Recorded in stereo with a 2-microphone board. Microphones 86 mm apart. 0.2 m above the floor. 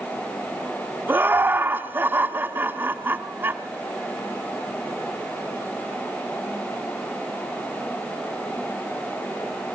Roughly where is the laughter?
Right.